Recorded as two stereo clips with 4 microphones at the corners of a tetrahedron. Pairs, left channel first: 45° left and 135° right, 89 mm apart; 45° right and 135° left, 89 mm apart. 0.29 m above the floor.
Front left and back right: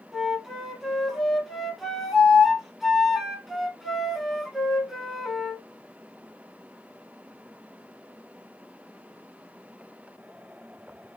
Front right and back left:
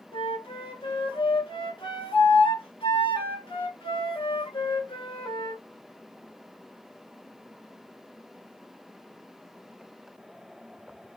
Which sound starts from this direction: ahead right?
A flute, at 0.1 s.